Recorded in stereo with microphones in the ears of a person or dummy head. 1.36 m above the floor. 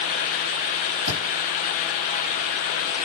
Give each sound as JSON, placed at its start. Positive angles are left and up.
{"t": 1.1, "sound": "a thud", "side_deg": -65, "distance_m": 4.0}